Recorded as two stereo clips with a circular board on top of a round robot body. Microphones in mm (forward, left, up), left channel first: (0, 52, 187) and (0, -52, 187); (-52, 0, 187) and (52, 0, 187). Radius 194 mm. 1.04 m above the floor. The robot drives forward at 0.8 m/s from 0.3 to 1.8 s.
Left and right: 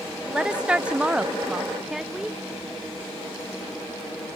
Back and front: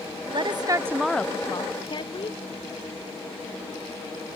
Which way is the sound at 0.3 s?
5° right.